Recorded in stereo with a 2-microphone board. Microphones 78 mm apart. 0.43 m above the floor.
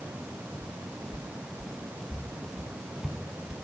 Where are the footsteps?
10° left (ahead or behind), 4.5 m; by 3.7 s 5° right (ahead or behind), 6 m.